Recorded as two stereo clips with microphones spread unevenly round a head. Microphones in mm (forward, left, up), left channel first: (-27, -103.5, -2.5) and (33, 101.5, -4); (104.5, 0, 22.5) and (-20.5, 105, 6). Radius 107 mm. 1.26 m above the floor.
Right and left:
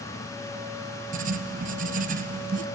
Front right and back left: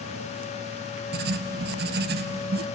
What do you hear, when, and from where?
1.1 s writing: 125° left, 0.8 m